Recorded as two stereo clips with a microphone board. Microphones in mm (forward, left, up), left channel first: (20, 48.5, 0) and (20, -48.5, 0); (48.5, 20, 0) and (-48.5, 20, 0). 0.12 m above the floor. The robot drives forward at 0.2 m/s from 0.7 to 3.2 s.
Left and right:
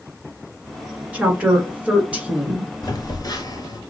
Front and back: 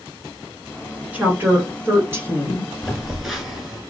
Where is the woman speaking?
140° right, 1.5 m; by 2.7 s 155° right, 1.6 m.